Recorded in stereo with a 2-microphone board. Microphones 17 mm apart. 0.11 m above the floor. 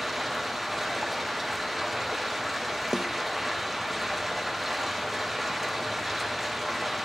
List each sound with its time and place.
0.0 s running water: centre (ahead or behind), 4 m
2.9 s a snare drum: 40° right (ahead or behind), 0.6 m